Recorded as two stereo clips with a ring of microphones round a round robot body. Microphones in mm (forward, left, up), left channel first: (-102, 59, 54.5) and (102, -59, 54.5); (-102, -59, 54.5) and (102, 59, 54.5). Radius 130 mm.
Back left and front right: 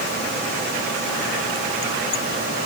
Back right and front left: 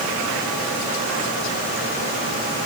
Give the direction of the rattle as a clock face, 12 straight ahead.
I don't hear a rattle.